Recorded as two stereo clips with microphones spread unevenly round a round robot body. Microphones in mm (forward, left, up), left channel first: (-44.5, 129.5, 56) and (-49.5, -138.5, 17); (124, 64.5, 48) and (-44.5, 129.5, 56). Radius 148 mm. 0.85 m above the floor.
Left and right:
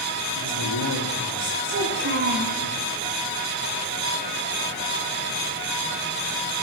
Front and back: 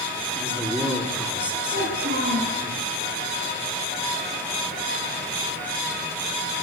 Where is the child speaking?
140° right, 5.5 m.